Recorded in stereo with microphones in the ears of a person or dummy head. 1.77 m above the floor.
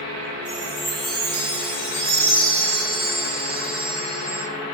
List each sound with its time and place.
0.5 s a chime: 65° right (ahead or behind), 5 m